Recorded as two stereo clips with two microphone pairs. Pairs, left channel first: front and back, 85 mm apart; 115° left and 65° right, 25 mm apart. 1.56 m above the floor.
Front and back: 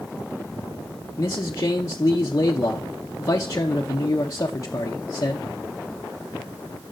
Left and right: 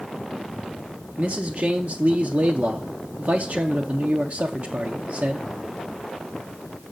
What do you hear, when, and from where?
1.2 s a man speaking: 50° right, 0.8 m